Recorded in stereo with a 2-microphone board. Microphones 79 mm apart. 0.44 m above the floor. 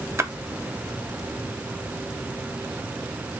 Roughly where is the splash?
Right.